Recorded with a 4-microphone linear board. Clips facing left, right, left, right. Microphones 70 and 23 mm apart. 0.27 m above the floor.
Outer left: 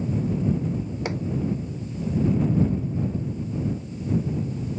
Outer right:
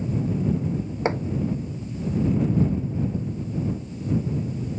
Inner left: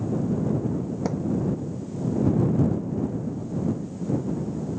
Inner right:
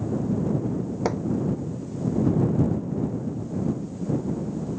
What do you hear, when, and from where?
1.1 s hammering: 35° right (ahead or behind)